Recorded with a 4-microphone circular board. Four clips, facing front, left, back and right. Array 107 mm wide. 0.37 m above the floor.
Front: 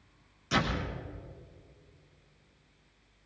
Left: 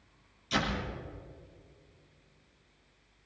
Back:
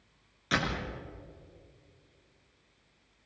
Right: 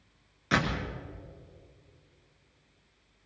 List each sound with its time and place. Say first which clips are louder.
0.5 s a door slam: right 3 dB, front 1 dB; 110° right, 5 m